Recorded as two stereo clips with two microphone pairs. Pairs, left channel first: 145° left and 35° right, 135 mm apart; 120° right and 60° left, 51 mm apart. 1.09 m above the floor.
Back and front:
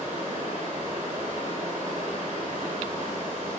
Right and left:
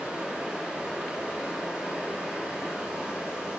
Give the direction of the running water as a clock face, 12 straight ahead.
12 o'clock.